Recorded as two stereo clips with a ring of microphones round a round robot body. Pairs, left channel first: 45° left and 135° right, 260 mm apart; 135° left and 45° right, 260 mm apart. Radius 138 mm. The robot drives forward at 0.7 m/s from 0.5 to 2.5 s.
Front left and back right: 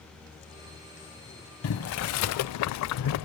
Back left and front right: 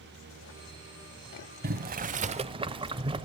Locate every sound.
1.6 s boiling: 10° left, 1.1 m; by 3.3 s 25° left, 0.5 m